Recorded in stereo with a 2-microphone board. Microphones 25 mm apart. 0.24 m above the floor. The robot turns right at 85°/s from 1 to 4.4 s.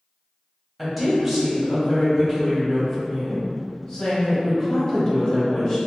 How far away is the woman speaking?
About 1.0 m.